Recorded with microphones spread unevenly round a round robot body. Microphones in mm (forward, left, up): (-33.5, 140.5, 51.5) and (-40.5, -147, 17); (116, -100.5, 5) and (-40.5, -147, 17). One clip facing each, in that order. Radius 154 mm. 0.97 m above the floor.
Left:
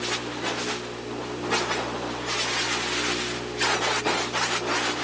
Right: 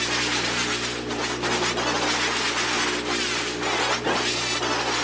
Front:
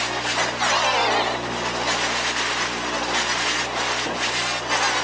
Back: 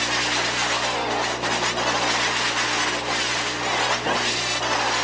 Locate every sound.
Only background noise.